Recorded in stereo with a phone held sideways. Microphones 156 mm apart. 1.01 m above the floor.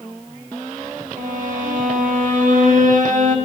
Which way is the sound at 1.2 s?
65° right (ahead or behind).